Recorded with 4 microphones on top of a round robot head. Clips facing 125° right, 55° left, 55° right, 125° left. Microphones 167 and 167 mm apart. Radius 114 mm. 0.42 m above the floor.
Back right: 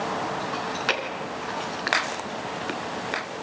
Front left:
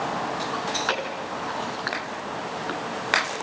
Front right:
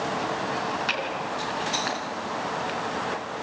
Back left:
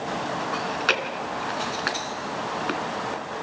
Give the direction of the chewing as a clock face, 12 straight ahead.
7 o'clock.